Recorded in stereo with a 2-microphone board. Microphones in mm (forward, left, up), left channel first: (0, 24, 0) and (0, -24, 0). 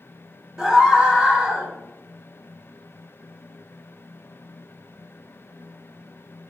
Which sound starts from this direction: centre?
A scream, at 0.6 s.